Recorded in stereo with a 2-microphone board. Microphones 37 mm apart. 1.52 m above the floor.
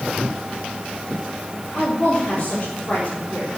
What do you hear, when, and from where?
1.7 s a woman speaking: 25° left (ahead or behind), 4.5 m